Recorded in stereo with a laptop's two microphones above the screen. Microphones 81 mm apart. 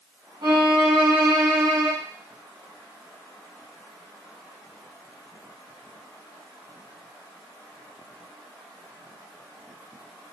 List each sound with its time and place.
0.4 s a violin: 60° right (ahead or behind), 1.2 m